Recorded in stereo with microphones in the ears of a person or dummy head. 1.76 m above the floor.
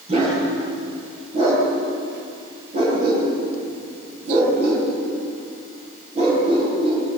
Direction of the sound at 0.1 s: 35° right (ahead or behind).